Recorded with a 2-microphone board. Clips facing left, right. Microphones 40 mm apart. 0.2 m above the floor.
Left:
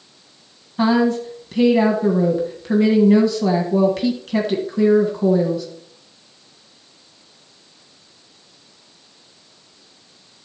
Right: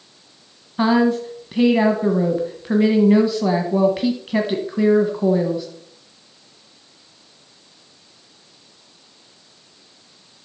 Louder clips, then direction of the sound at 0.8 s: Even; 10° right (ahead or behind).